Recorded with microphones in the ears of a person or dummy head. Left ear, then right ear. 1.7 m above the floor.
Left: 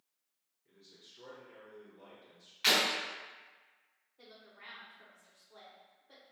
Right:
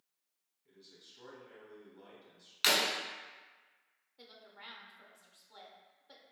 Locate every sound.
0.7 s a man speaking: 15° right (ahead or behind), 1.8 m
2.6 s breaking glass: 35° right (ahead or behind), 1.3 m
4.2 s a woman speaking: 40° right (ahead or behind), 0.6 m